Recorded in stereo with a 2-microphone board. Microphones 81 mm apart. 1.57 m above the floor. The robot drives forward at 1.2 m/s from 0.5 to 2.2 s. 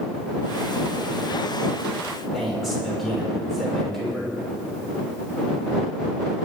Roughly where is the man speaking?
Centre.